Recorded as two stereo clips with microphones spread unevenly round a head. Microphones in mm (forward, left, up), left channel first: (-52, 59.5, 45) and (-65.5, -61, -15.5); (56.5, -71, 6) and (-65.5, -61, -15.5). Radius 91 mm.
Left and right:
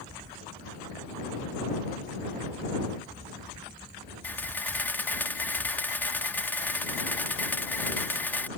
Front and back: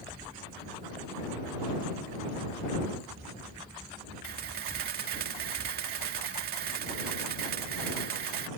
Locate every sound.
4.2 s a camera shutter: 155° left